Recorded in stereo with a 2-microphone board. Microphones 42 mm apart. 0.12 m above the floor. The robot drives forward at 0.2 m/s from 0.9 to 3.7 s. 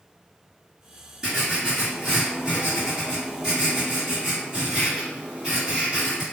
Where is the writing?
15° right (ahead or behind), 1.8 m.